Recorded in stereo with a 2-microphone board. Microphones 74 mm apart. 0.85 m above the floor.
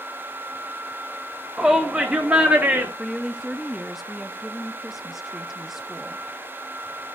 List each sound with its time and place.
1.6 s a shout: 5° right (ahead or behind), 1.6 m; by 2.9 s 20° right (ahead or behind), 2 m
3.0 s a woman speaking: 5° right (ahead or behind), 0.5 m